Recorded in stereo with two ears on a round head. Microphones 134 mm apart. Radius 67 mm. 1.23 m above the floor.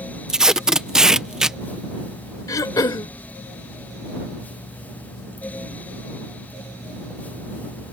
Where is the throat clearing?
25° left (ahead or behind).